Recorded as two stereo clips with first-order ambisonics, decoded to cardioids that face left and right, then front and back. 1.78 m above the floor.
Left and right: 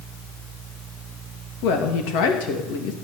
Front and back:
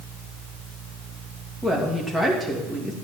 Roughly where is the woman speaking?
Left.